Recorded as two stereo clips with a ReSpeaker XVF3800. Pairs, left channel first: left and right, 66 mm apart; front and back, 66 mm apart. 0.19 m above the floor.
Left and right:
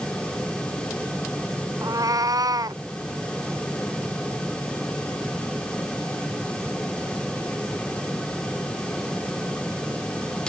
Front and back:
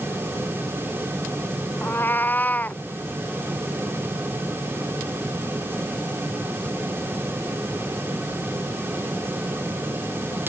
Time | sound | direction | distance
1.8 | a cat meowing | 60° right | ?